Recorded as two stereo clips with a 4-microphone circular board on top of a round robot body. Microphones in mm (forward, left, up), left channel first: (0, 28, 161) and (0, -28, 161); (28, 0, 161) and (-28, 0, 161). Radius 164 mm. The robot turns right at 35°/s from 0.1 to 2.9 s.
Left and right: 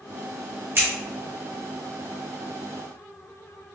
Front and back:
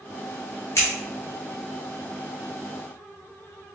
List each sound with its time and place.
0.8 s scissors: 45° right, 1.2 m; by 0.9 s 40° right, 1.2 m